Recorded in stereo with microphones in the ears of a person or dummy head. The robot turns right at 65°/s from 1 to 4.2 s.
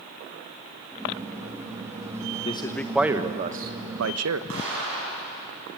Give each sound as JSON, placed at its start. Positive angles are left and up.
{"t": 2.5, "sound": "a man speaking", "azimuth_deg": 150, "distance_m": 1.3}
{"t": 4.5, "sound": "an explosion", "side_deg": -75, "distance_m": 8.0}